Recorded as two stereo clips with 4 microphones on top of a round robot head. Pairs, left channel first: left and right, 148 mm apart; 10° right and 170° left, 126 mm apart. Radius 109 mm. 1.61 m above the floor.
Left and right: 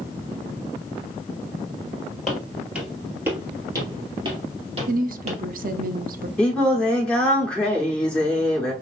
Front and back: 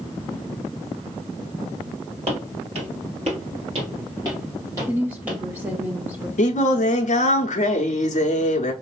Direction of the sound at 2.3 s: Straight behind.